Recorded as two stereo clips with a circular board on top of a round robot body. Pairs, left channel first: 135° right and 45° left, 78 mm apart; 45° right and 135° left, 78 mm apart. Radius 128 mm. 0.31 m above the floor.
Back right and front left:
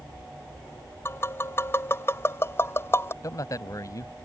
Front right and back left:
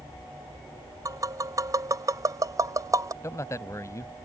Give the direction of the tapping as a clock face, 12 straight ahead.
6 o'clock.